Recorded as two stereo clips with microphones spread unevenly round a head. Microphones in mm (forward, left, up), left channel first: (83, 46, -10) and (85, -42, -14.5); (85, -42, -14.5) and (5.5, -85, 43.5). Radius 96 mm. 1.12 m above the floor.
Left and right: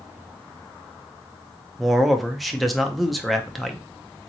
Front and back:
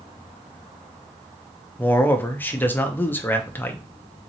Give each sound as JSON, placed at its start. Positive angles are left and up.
{"t": 1.8, "sound": "a man speaking", "azimuth_deg": 0, "distance_m": 0.9}